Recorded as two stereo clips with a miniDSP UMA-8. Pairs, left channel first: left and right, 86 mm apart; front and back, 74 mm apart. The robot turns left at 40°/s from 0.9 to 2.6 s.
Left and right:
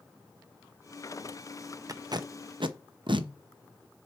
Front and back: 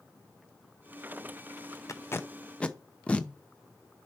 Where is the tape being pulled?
45° right, 0.6 m; by 3.3 s 75° right, 0.6 m.